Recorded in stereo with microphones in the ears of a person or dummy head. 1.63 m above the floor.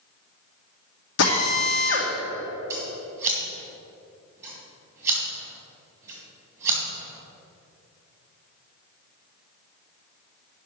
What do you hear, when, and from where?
1.2 s a drill: 65° left (ahead or behind), 2 m
2.7 s scissors: 10° right (ahead or behind), 2.5 m